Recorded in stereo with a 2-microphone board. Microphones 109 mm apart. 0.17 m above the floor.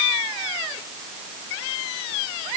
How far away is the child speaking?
I don't hear a child speaking.